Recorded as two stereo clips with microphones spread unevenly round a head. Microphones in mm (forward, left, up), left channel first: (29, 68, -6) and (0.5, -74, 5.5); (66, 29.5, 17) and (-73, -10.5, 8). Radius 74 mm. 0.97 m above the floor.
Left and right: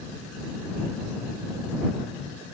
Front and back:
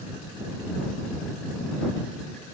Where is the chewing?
I don't hear chewing.